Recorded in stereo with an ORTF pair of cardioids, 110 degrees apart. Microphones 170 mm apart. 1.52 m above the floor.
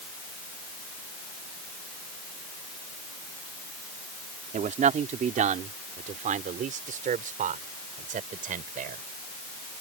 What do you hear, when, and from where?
4.5 s a man speaking: 45° right; by 9.0 s 55° right